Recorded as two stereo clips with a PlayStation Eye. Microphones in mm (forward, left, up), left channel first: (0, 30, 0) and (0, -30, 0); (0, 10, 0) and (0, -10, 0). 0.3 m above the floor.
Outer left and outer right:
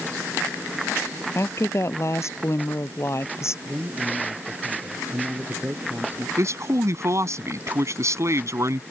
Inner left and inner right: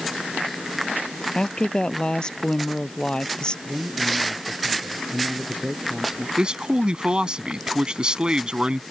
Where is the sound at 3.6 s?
30° right (ahead or behind).